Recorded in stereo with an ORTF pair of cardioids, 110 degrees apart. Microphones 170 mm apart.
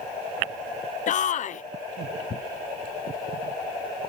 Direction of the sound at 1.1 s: 50° left.